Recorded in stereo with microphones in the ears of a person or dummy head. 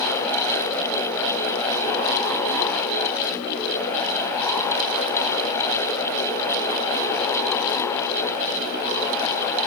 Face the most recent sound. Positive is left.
No sound to turn to.